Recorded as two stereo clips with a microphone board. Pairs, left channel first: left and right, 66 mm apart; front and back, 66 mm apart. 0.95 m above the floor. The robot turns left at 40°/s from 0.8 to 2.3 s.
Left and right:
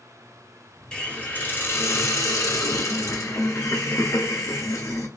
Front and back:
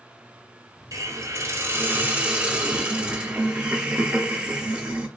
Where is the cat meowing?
I don't hear a cat meowing.